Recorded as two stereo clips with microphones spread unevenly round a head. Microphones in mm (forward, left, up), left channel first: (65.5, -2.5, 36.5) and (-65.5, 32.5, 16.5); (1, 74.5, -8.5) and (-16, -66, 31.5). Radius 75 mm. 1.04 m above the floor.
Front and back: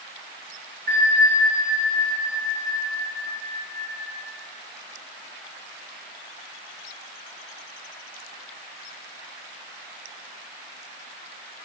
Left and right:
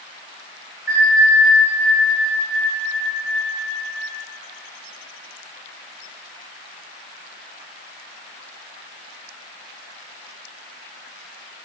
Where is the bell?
160° right, 1.6 m.